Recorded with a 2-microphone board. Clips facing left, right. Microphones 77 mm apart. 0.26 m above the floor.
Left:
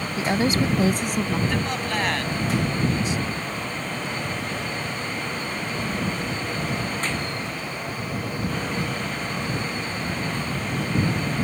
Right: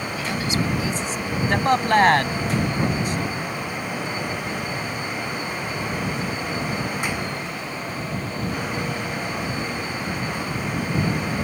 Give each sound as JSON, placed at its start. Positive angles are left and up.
{"t": 0.2, "sound": "a woman speaking", "side_deg": 30}
{"t": 1.5, "sound": "a man speaking", "side_deg": -50}